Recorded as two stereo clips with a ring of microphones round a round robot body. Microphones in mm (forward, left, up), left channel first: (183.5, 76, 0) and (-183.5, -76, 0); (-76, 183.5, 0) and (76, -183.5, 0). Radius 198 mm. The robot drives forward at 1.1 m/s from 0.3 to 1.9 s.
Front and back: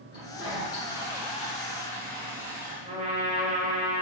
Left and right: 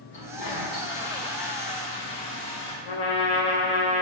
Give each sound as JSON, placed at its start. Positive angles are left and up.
{"t": 0.1, "sound": "a toilet flushing", "azimuth_deg": 70, "distance_m": 3.0}
{"t": 2.9, "sound": "a trumpet", "azimuth_deg": 130, "distance_m": 1.5}